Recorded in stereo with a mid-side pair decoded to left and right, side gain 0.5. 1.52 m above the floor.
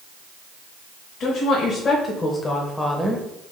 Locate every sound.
1.2 s a woman speaking: 55° left, 1.5 m; by 3.2 s 10° right, 0.8 m